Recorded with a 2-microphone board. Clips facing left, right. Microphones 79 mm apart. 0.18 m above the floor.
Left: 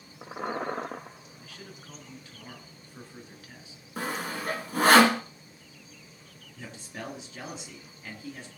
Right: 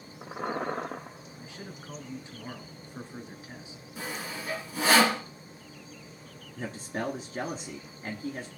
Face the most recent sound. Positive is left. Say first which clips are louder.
# right 7 dB
turn(degrees=-40)  # may be behind; listen again after turning